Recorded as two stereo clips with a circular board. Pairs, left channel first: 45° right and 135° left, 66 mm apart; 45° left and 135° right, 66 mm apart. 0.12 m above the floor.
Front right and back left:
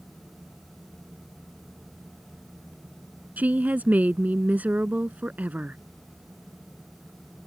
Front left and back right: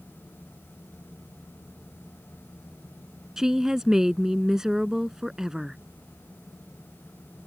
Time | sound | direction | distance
3.4 | a woman speaking | 155° left | ?